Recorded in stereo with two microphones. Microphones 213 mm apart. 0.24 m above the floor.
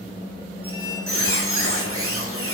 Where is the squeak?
75° right (ahead or behind), 1.7 m.